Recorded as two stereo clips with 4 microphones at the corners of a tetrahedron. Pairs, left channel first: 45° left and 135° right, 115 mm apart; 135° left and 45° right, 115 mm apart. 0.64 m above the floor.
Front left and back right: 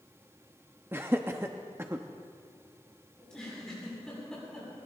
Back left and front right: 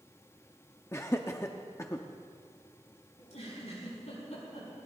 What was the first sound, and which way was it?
Laughter, 175° left.